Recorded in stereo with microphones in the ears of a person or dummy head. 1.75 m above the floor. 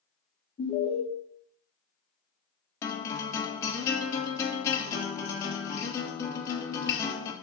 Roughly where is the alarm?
Left.